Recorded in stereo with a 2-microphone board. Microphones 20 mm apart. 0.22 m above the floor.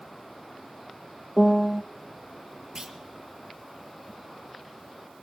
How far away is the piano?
About 0.5 m.